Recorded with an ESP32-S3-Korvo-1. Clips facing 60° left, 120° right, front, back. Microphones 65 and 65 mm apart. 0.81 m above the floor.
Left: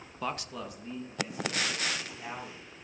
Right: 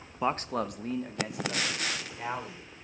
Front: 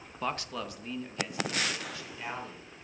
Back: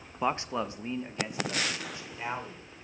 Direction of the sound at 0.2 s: 150° right.